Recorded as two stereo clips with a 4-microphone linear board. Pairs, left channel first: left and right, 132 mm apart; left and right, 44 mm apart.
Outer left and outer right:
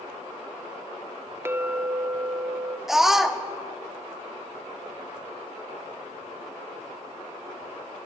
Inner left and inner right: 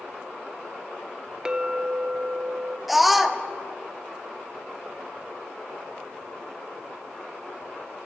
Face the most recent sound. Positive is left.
turn(degrees=-5)  # may be behind; listen again after turning